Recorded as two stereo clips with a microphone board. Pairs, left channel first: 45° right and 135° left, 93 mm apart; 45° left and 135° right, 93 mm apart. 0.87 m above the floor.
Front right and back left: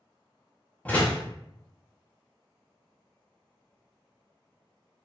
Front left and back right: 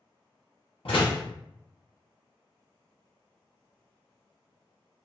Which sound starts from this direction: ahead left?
A door slam, at 0.8 s.